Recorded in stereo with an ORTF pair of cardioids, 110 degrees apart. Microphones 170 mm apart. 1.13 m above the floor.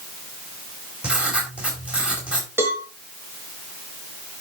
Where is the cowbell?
15° right, 4 m.